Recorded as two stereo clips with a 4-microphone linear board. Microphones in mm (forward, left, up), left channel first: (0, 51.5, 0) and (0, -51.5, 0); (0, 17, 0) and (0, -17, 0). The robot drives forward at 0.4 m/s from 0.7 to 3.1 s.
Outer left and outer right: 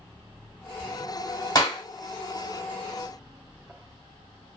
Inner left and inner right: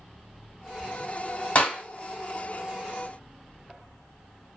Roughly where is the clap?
Left.